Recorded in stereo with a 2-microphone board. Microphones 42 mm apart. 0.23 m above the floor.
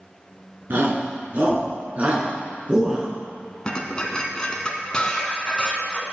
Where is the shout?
50° right (ahead or behind), 3 m; by 3.1 s 20° right (ahead or behind), 2.5 m.